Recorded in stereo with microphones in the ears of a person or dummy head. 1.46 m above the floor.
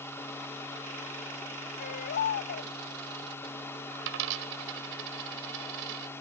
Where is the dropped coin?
70° right (ahead or behind).